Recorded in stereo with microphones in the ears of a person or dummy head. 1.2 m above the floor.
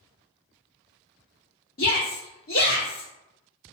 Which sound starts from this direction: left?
A shout, at 1.8 s.